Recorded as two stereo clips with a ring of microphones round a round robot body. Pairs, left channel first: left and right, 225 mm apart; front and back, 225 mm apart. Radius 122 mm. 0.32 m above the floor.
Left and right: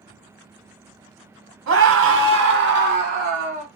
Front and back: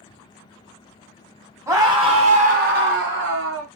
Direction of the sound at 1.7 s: 105° right.